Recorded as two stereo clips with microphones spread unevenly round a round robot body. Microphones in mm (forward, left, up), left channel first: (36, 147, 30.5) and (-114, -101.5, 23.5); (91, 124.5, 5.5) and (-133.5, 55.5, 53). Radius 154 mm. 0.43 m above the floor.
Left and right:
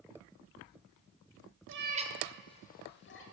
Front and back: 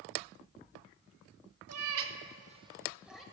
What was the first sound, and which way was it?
A cat meowing, 160° right.